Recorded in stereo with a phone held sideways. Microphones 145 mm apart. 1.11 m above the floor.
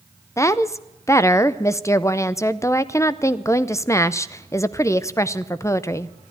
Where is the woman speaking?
20° left (ahead or behind), 0.5 m.